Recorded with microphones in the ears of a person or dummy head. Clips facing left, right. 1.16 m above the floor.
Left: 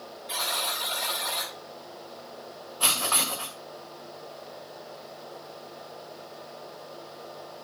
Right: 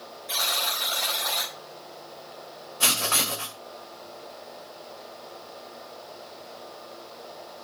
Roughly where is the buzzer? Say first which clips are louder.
Right 1 dB; centre.